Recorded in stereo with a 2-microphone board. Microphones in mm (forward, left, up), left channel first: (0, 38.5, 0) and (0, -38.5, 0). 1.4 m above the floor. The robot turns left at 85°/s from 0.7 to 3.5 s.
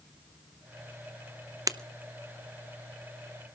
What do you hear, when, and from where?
1.7 s breaking glass: 45° right (ahead or behind), 0.6 m